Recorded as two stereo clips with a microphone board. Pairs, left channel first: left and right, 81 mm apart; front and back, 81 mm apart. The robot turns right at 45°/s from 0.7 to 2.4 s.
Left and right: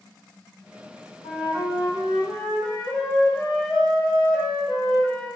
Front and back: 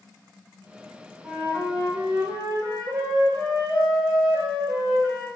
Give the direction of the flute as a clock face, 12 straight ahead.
8 o'clock.